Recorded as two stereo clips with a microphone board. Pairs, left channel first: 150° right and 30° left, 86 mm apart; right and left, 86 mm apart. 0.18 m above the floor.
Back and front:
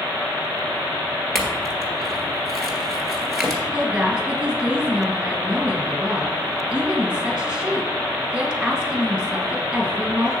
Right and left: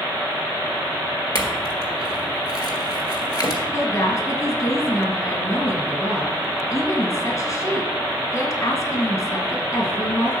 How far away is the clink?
About 1.8 m.